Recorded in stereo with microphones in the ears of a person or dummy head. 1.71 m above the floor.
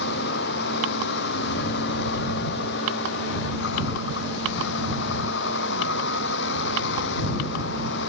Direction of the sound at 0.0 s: 60° left (ahead or behind).